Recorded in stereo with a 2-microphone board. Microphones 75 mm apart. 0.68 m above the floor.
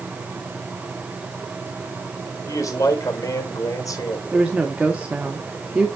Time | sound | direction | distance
2.5 | a man speaking | 50° left (ahead or behind) | 3 m
4.3 | a woman speaking | 15° right (ahead or behind) | 1.2 m